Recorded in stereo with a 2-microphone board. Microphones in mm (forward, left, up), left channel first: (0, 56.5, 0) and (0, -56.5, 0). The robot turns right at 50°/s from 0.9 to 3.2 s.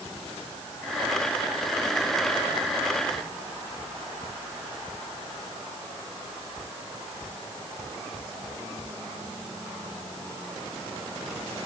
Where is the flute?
No flute in this recording.